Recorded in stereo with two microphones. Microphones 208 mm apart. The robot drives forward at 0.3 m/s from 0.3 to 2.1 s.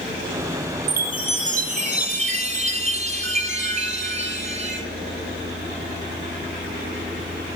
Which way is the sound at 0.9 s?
45° right (ahead or behind).